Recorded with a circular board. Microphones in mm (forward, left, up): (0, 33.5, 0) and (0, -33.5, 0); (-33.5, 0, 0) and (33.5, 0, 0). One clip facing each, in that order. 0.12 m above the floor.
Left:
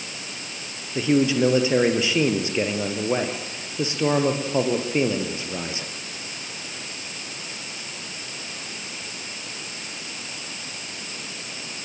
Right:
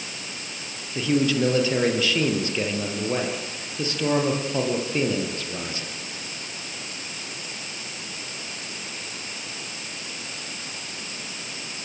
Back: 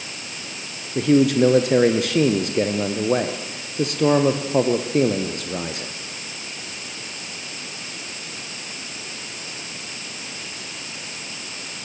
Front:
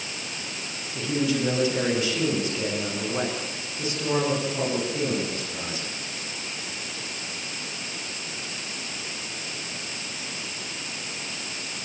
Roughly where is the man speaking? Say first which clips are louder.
Left 2 dB, back 9 dB; behind.